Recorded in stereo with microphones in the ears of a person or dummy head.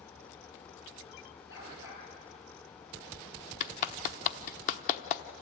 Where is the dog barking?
75° left (ahead or behind), 7.5 m.